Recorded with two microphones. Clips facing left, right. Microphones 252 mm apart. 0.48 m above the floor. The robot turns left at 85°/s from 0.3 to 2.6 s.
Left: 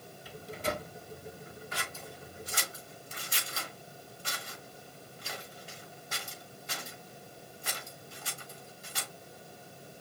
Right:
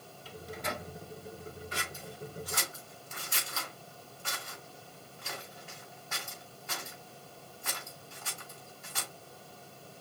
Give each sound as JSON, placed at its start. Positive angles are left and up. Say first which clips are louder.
{"t": 0.2, "sound": "a microwave", "louder": "left 3 dB", "side_deg": 15, "distance_m": 1.3}
{"t": 1.7, "sound": "scissors", "louder": "right 1 dB", "side_deg": -35, "distance_m": 3.5}